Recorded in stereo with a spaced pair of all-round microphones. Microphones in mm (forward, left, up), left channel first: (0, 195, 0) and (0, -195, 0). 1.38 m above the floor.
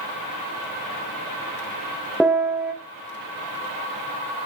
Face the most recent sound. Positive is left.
turn(degrees=-5)  # may be behind; listen again after turning